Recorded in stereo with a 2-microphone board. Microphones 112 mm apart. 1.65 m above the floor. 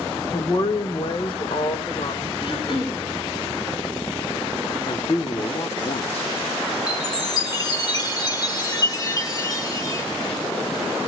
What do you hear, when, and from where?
0.3 s a woman speaking: 35° left (ahead or behind), 1.8 m; by 2.3 s 60° left (ahead or behind), 3 m
2.4 s throat clearing: 50° left (ahead or behind), 6.5 m
4.9 s a man speaking: 60° left (ahead or behind), 1.6 m
6.9 s a chime: 35° left (ahead or behind), 1.4 m